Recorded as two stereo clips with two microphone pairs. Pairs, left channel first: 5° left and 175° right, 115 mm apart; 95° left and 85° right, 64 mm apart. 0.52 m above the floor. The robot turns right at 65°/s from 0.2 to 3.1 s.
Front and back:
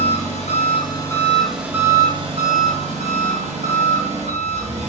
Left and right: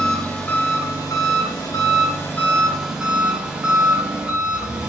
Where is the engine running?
15° left, 2.5 m; by 4.9 s 155° right, 2.5 m.